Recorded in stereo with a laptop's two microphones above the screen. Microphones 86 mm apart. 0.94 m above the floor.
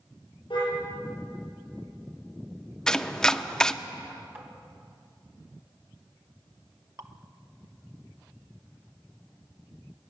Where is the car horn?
65° left (ahead or behind), 7.5 m.